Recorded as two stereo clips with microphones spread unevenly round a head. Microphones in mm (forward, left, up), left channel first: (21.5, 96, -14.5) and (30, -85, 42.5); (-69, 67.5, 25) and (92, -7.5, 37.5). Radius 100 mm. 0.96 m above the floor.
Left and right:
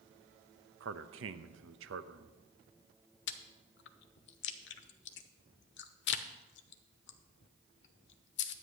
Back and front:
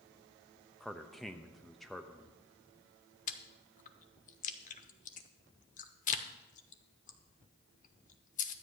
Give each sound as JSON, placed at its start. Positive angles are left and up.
{"t": 0.8, "sound": "a man speaking", "azimuth_deg": -120, "distance_m": 0.7}
{"t": 3.3, "sound": "chewing", "azimuth_deg": 125, "distance_m": 0.7}